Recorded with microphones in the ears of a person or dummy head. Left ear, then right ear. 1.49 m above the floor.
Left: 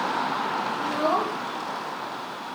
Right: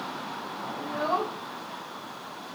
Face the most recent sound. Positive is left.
turn(degrees=-20)  # may be behind; listen again after turning